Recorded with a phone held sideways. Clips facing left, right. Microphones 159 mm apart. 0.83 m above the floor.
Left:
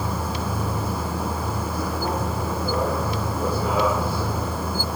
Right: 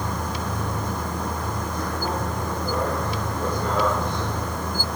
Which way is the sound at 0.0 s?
5° left (ahead or behind).